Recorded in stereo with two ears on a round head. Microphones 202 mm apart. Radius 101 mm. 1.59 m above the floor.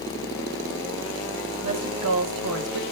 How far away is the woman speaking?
About 3 m.